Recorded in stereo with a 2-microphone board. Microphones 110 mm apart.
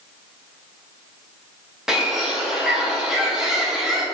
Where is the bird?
5° right (ahead or behind), 3 m.